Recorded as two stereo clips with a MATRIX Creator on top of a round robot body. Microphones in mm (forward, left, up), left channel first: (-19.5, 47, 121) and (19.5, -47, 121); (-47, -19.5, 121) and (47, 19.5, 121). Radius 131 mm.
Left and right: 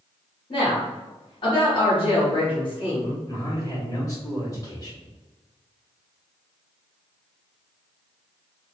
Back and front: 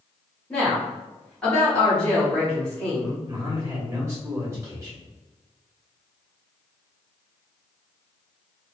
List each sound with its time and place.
0.5 s a woman speaking: 125° left, 1.7 m
3.3 s a man speaking: 75° left, 1.7 m